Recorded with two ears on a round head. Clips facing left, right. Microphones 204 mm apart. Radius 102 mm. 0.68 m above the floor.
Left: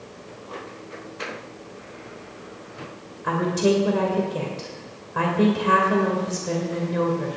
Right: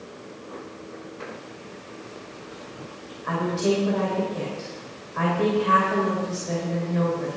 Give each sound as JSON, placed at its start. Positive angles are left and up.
{"t": 3.2, "sound": "a woman speaking", "side_deg": 65, "distance_m": 2.5}